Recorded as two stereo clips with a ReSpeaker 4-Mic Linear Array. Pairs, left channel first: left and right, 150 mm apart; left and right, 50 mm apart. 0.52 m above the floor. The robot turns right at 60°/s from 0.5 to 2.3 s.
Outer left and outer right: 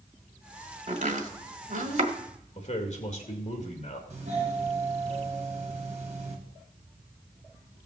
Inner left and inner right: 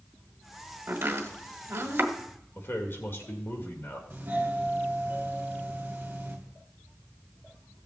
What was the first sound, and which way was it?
Chopping, 45° right (ahead or behind).